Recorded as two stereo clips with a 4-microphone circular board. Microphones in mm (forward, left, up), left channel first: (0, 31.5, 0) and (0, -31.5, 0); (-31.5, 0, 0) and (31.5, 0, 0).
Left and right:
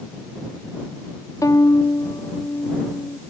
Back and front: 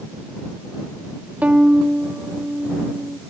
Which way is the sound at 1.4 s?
65° left.